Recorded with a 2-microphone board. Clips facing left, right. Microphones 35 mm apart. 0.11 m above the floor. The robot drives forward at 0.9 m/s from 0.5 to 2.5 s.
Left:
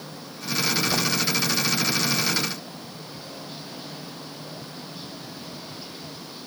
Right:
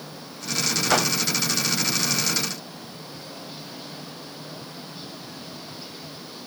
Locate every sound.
0.9 s a whoosh: 65° right (ahead or behind)